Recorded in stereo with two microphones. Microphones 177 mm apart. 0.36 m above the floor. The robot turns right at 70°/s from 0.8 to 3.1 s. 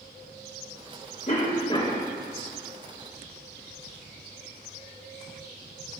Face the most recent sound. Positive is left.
turn(degrees=-130)